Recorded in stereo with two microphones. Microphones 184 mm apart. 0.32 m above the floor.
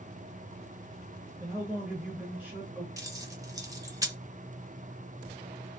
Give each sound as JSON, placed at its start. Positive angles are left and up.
{"t": 1.4, "sound": "a man speaking", "side_deg": -10, "distance_m": 1.1}
{"t": 3.0, "sound": "keys jangling", "side_deg": -20, "distance_m": 0.6}